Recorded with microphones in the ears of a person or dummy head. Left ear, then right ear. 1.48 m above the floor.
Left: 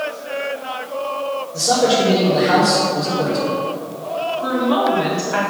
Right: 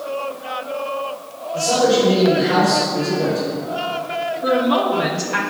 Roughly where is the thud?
I don't hear a thud.